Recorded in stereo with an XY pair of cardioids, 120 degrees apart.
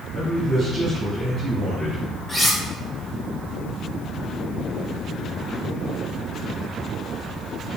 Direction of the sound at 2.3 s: 5° left.